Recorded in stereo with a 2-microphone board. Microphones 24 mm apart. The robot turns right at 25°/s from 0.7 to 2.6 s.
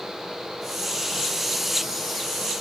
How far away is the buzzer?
I don't hear a buzzer.